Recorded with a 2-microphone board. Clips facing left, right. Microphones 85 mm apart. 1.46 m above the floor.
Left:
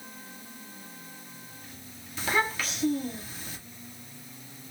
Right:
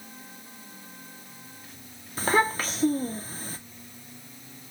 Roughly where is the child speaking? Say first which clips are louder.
Right 4 dB; right.